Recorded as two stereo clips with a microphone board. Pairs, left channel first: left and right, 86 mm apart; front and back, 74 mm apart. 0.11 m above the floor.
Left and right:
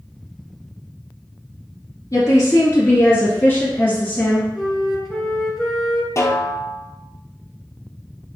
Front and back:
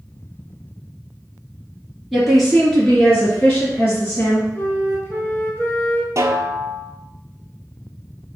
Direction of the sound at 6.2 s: 140° left.